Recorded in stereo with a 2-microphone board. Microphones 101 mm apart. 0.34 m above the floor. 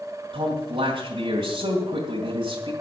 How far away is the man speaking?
About 2.5 m.